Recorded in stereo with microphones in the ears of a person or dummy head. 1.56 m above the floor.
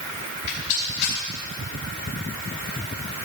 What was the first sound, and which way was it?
A rattle, 45° left (ahead or behind).